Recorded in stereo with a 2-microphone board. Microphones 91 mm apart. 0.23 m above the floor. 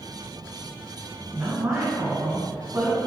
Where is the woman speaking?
35° right (ahead or behind), 2 m.